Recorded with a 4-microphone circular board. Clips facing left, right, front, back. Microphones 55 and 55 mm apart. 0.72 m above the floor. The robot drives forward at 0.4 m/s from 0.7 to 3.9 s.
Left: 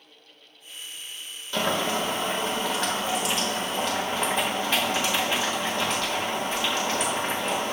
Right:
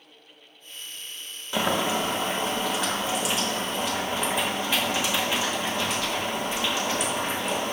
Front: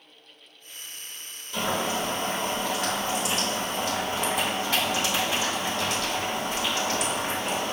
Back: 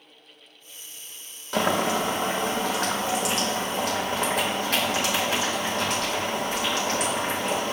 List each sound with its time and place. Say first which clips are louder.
1.5 s boiling: right 1 dB, back 4 dB; 165° right, 0.5 m; by 7.7 s 175° right, 1.4 m